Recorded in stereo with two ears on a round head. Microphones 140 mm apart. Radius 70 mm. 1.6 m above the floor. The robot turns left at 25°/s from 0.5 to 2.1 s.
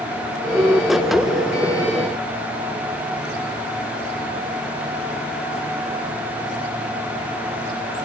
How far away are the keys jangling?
No keys jangling in this recording.